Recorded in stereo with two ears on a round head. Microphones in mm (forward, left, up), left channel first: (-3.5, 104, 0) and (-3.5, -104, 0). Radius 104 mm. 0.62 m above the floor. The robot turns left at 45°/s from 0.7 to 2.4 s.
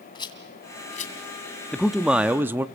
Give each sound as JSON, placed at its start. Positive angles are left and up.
{"t": 0.1, "sound": "a rattle", "side_deg": 20, "distance_m": 2.0}
{"t": 1.7, "sound": "a man speaking", "side_deg": 5, "distance_m": 0.6}